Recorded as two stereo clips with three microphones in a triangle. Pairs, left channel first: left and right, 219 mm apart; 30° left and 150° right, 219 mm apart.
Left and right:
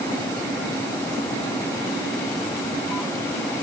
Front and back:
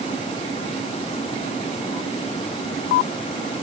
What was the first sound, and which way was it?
Only background noise.